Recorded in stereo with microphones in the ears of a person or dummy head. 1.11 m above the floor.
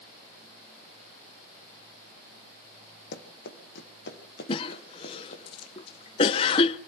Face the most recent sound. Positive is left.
turn(degrees=25)  # may be behind; listen again after turning